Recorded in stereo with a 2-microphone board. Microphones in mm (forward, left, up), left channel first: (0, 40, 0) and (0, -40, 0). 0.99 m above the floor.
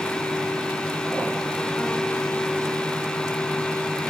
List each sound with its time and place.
Only background noise.